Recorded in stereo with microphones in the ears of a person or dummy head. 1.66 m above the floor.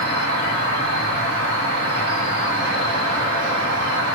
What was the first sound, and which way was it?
An insect, 80° right.